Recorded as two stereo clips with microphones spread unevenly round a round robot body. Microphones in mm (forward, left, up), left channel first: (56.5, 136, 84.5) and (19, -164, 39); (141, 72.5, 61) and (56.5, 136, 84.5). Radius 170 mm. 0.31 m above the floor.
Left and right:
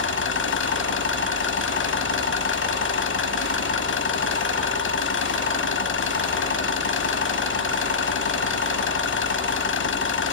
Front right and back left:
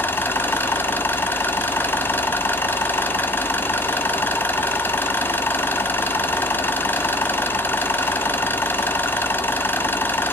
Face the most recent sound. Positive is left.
turn(degrees=30)